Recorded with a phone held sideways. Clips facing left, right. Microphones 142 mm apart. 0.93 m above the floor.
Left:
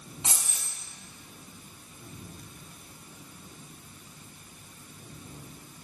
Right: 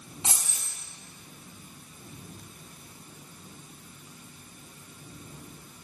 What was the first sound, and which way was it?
Keys jangling, 25° right (ahead or behind).